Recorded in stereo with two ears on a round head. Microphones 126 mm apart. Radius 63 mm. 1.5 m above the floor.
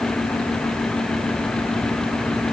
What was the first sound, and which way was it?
Only background noise.